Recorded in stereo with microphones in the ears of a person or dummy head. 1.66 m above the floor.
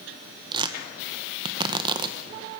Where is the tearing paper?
20° right (ahead or behind), 1.6 m.